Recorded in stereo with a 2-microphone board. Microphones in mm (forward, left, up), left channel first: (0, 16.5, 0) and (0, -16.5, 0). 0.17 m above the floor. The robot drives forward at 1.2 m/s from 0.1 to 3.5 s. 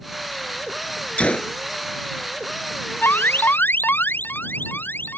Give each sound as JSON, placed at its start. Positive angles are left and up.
{"t": 1.2, "sound": "a gunshot", "side_deg": 40}
{"t": 3.0, "sound": "an alarm", "side_deg": 85}